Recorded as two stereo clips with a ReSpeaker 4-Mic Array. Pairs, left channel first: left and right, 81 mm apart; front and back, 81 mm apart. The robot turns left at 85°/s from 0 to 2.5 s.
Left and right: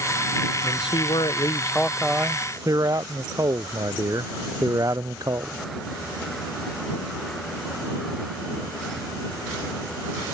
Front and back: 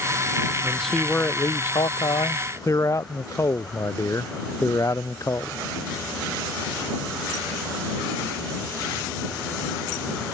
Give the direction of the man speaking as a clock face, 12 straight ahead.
8 o'clock.